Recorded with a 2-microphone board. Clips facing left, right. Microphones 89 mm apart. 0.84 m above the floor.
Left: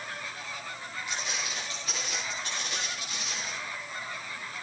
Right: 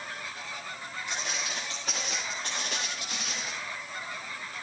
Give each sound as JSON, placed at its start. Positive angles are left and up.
{"t": 1.1, "sound": "footsteps", "side_deg": -40, "distance_m": 6.0}